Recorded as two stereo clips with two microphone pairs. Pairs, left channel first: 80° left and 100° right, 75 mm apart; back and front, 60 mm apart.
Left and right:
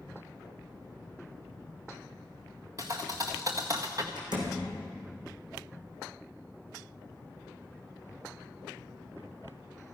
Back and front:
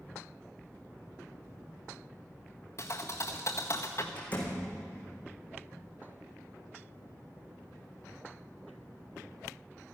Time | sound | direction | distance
2.8 | a thud | 140° right | 1.8 m
4.2 | a door slam | 115° right | 4.5 m